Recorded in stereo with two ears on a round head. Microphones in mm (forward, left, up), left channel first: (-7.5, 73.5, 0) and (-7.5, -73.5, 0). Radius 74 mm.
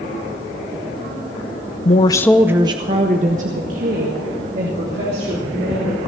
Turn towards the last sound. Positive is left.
turn(degrees=-60)  # may be behind; listen again after turning